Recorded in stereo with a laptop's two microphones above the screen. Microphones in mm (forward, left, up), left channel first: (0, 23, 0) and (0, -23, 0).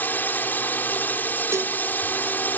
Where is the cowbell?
85° right.